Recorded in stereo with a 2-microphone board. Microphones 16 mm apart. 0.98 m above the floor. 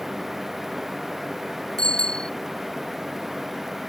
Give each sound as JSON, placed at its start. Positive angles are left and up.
{"t": 1.8, "sound": "a bicycle bell", "side_deg": 50}